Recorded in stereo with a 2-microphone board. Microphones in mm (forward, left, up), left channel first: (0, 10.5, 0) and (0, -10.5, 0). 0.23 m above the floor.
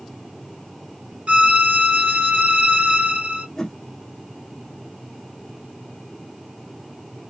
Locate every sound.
1.3 s a violin: 80° right, 0.7 m
3.6 s a whoosh: 25° left (ahead or behind), 0.7 m